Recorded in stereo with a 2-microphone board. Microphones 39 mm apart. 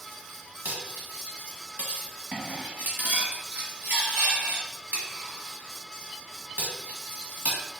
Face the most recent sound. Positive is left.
turn(degrees=-50)  # may be behind; listen again after turning